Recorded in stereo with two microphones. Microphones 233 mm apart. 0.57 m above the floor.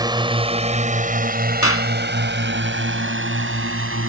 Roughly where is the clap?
Left.